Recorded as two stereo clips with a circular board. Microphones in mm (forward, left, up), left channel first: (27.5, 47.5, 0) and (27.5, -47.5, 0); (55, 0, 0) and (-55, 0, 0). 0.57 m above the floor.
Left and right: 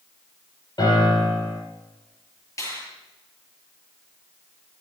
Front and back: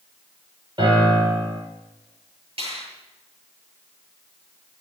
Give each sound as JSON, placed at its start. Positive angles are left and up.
{"t": 0.8, "sound": "a piano", "azimuth_deg": 135, "distance_m": 7.0}
{"t": 2.6, "sound": "a finger snap", "azimuth_deg": 150, "distance_m": 8.0}